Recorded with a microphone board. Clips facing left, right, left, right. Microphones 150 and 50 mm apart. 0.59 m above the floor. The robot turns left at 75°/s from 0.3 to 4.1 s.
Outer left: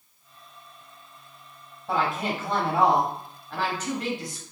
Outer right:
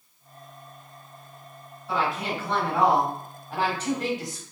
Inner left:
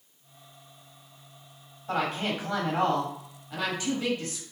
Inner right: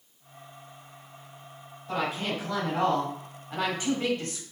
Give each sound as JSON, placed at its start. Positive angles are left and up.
{"t": 1.9, "sound": "a woman speaking", "azimuth_deg": 105, "distance_m": 1.3}